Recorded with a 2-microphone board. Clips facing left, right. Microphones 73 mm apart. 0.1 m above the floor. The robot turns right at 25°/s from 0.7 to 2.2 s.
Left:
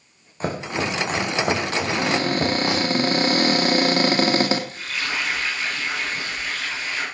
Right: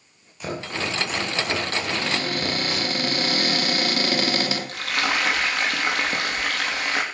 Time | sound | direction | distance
0.4 | chopping | 35° left (ahead or behind) | 4 m
1.8 | a cupboard door | 40° left (ahead or behind) | 3 m
4.7 | frying | 70° right (ahead or behind) | 4.5 m